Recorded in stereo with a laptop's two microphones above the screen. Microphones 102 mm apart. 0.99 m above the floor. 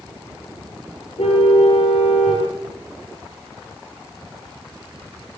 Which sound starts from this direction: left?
A car horn, at 1.2 s.